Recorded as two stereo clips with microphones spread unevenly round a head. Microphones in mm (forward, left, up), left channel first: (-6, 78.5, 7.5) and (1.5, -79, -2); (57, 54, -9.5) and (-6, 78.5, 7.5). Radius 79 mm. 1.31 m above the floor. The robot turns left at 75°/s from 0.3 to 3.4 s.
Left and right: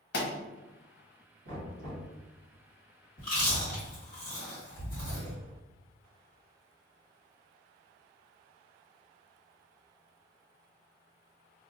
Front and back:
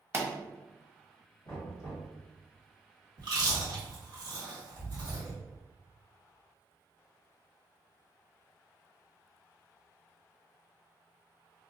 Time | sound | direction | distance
0.1 | a pop | 100° left | 0.8 m
1.4 | knocking | 85° right | 1.4 m
3.2 | chewing | 150° left | 1.4 m